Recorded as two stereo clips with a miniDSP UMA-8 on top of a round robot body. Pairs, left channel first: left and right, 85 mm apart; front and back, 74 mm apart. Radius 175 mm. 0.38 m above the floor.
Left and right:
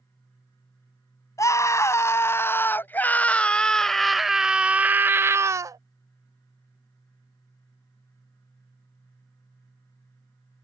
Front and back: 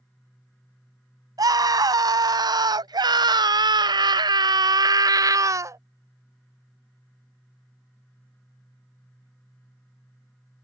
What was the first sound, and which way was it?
A scream, 145° left.